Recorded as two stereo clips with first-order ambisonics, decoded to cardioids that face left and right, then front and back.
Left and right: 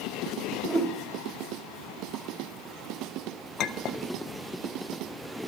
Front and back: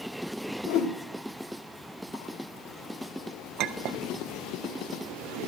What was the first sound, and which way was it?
A whoosh, 20° right.